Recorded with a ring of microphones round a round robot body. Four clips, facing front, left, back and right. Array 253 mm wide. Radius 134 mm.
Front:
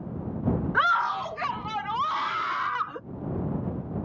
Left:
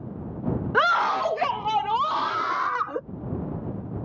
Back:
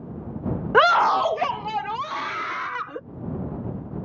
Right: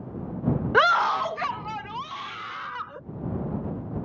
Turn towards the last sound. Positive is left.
turn(degrees=110)